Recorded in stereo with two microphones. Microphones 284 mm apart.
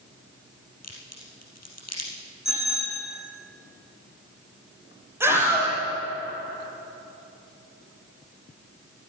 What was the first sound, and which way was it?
A crack, 60° left (ahead or behind).